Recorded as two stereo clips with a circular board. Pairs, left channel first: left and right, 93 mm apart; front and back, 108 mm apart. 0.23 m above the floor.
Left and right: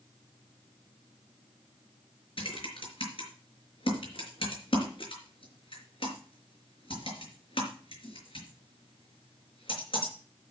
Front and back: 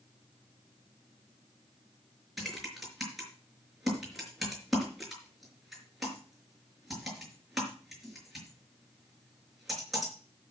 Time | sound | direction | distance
2.4 | typing on a keyboard | 90° left | 5 m